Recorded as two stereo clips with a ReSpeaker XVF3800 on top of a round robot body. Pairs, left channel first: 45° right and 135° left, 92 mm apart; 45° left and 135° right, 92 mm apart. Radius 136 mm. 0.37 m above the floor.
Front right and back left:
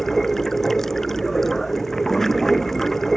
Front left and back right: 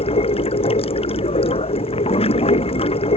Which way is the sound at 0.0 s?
40° left.